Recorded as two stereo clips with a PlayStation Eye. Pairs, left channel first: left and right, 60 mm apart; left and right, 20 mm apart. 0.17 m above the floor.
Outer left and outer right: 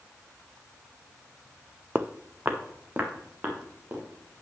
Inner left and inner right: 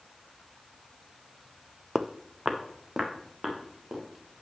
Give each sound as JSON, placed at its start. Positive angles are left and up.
{"t": 1.9, "sound": "footsteps", "side_deg": -30, "distance_m": 0.5}